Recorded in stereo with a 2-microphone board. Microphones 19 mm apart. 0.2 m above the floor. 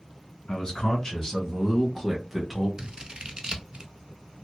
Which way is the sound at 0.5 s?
40° left (ahead or behind).